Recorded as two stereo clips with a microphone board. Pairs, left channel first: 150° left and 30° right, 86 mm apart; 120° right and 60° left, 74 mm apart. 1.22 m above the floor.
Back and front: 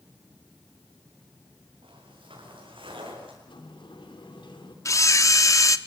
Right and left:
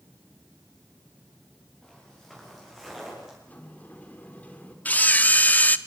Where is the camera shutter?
175° right, 0.9 m.